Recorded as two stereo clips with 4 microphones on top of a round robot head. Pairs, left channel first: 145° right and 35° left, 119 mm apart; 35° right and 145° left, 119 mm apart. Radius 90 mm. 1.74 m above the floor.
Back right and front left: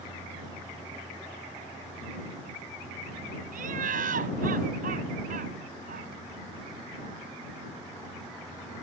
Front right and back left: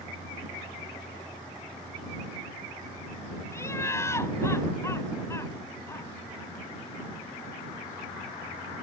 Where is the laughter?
35° left.